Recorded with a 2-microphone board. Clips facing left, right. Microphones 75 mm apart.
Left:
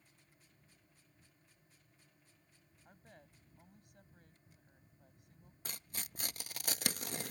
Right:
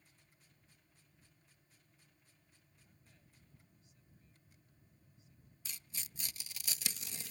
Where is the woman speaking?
60° left (ahead or behind).